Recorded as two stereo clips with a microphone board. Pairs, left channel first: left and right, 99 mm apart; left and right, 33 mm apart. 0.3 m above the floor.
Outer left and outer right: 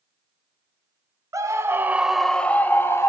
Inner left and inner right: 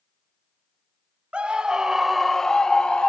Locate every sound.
1.3 s a scream: 35° right (ahead or behind), 1.3 m; by 3.1 s 25° left (ahead or behind), 1.7 m